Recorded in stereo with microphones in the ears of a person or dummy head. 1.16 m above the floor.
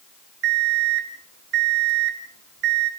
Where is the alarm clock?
65° right (ahead or behind), 1.8 m.